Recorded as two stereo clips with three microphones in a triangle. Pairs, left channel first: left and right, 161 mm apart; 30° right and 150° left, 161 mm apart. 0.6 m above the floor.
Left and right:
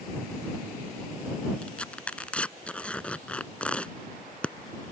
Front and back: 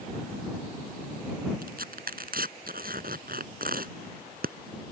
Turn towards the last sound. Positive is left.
turn(degrees=175)